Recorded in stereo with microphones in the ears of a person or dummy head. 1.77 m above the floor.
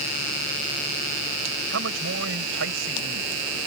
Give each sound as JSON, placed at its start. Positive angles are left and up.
{"t": 1.7, "sound": "a man speaking", "side_deg": -60}